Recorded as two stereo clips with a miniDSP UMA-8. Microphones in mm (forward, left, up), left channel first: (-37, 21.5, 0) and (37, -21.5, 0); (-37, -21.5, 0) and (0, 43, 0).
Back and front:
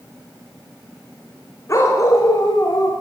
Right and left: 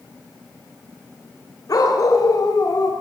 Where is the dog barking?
155° right, 9.5 m; by 2.9 s 165° right, 10 m.